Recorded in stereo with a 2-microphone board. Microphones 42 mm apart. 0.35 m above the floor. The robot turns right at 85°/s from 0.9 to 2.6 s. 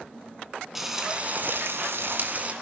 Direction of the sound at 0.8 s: 170° right.